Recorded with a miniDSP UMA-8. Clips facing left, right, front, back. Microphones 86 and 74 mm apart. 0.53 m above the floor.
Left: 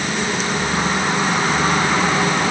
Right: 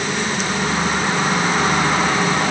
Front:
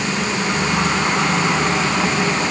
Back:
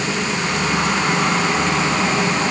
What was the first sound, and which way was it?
Only background noise.